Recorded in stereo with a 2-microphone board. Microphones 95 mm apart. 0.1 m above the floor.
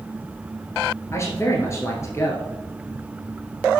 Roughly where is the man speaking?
Left.